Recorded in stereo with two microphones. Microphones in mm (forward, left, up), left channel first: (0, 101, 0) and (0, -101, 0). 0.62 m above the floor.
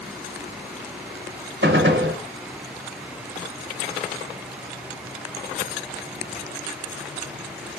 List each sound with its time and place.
1.6 s a gunshot: 75° right (ahead or behind), 0.8 m